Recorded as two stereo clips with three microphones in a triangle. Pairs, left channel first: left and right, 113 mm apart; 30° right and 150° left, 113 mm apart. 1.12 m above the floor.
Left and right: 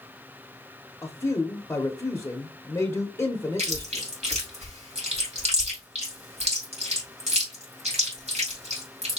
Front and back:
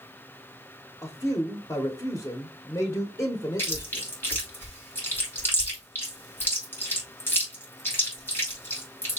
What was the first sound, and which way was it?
A man speaking, 25° left.